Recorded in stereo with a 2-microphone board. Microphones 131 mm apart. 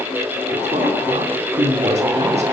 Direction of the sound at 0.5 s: 60° right (ahead or behind).